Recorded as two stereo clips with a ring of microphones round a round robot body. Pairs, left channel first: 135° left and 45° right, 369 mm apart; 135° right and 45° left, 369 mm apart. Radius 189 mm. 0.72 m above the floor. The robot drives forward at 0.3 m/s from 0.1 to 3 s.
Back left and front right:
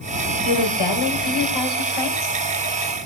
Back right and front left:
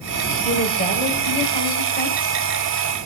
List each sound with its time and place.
0.5 s a woman speaking: 155° left, 4 m; by 2.4 s 160° left, 4.5 m